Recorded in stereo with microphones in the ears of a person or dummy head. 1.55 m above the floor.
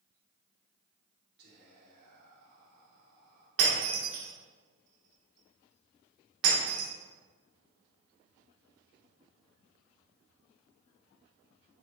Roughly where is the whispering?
Right.